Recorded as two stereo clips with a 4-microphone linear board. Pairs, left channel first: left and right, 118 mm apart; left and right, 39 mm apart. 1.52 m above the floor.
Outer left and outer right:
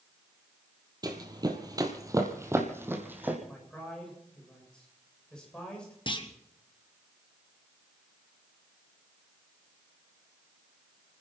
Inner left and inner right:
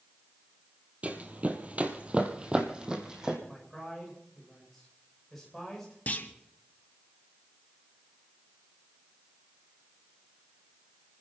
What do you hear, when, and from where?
1.0 s running footsteps: 35° right (ahead or behind), 1.9 m; by 3.4 s 15° right (ahead or behind), 3 m
3.5 s a man speaking: 5° left (ahead or behind), 7 m
6.1 s a clunk: 45° left (ahead or behind), 1.4 m